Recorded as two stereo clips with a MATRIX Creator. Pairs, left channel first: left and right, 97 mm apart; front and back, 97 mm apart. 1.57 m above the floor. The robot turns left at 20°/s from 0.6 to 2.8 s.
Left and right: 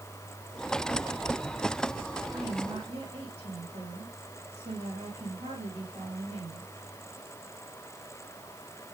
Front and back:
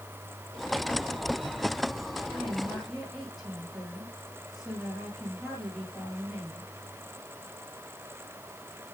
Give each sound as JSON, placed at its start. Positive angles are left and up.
{"t": 2.3, "sound": "a woman speaking", "azimuth_deg": -80, "distance_m": 9.5}